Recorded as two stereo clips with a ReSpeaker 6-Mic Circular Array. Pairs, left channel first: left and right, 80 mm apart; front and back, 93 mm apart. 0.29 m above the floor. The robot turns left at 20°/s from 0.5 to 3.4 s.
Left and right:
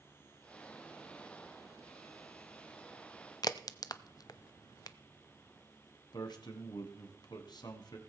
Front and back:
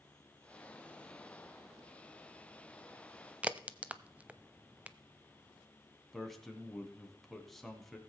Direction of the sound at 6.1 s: 85° left.